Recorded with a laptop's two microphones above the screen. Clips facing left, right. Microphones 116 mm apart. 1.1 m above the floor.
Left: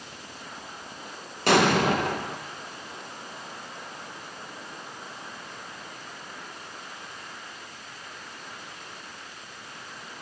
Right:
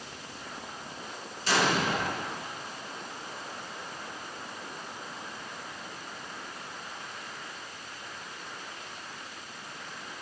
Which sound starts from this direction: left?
An explosion, at 1.5 s.